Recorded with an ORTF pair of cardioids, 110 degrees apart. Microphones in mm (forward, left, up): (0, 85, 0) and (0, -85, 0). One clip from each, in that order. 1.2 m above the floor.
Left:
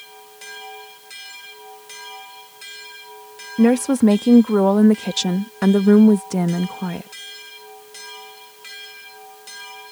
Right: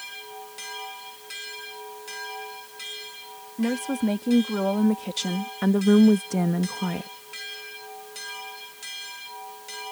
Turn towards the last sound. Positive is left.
turn(degrees=10)